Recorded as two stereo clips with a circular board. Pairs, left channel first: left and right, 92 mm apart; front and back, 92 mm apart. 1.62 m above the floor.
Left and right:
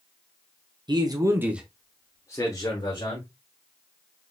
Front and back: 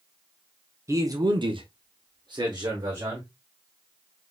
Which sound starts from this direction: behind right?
A man speaking, at 0.9 s.